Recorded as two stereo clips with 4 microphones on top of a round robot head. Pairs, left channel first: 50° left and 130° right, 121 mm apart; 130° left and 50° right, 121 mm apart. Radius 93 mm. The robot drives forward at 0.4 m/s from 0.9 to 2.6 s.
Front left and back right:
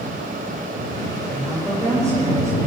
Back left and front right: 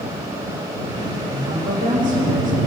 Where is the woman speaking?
65° right, 8.5 m.